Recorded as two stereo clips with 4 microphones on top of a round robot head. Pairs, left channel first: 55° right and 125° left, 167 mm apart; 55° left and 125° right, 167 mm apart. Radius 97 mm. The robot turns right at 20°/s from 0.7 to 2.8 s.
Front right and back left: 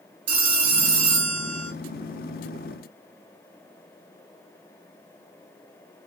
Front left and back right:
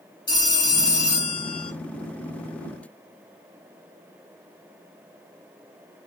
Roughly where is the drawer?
No drawer in this recording.